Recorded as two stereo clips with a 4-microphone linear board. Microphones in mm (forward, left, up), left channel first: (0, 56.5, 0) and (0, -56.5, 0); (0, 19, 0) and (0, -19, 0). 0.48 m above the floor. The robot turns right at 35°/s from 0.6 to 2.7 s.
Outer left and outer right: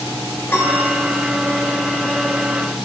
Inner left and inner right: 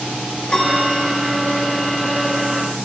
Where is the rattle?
I don't hear a rattle.